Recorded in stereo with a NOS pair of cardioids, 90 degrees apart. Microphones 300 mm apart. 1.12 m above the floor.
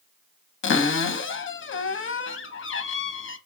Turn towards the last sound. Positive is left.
turn(degrees=40)